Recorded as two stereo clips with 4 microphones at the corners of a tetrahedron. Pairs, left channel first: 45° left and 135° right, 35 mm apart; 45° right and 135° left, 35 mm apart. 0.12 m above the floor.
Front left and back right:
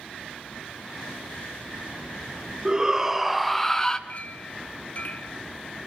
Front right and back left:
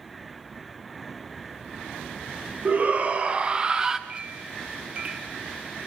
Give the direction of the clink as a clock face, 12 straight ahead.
9 o'clock.